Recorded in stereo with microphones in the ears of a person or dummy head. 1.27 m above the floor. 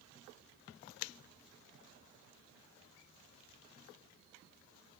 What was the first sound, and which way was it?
Only background noise.